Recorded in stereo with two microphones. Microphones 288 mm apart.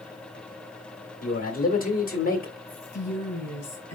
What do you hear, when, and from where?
1.2 s a man speaking: 30° left (ahead or behind), 1.7 m
2.7 s a woman speaking: 45° left (ahead or behind), 3 m